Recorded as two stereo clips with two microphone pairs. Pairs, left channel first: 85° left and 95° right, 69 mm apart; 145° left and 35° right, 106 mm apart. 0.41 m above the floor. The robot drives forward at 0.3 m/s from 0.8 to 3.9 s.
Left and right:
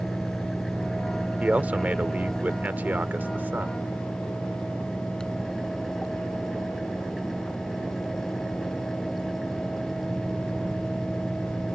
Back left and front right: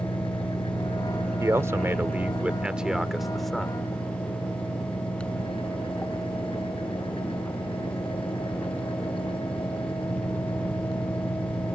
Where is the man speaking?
55° right; by 3.8 s 135° right.